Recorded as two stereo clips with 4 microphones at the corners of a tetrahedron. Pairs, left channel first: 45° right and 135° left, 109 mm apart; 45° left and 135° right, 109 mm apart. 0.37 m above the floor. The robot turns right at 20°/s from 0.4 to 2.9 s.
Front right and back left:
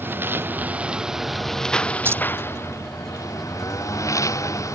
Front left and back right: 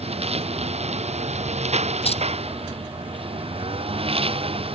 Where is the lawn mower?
155° right; by 4.8 s 105° right.